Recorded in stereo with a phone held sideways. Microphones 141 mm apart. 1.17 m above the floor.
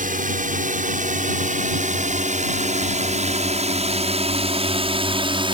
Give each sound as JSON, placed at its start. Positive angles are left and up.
{"t": 0.0, "sound": "a drone", "side_deg": -70}